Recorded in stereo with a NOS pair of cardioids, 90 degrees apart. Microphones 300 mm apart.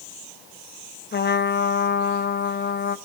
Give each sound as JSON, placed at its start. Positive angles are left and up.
{"t": 1.1, "sound": "a trumpet", "azimuth_deg": 30, "distance_m": 0.9}